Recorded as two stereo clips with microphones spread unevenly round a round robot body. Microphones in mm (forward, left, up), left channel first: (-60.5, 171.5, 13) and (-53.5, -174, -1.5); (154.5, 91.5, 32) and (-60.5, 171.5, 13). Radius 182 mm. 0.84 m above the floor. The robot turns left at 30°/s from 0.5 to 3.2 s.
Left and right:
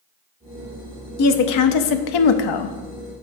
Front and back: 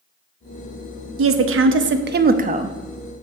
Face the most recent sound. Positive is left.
turn(degrees=80)